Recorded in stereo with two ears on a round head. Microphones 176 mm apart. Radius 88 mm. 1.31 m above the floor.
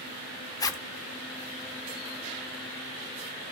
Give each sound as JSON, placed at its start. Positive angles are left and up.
{"t": 0.6, "sound": "a zipper", "side_deg": 20, "distance_m": 0.9}